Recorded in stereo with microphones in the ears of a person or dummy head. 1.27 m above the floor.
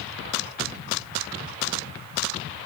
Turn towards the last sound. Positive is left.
No sound to turn to.